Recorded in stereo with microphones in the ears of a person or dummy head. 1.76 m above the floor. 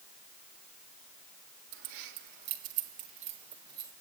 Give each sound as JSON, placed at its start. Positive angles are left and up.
{"t": 1.7, "sound": "keys jangling", "side_deg": -70, "distance_m": 1.7}